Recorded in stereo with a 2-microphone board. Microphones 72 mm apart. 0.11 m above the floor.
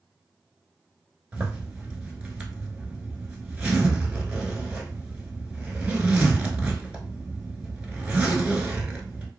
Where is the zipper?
15° right (ahead or behind), 0.7 m.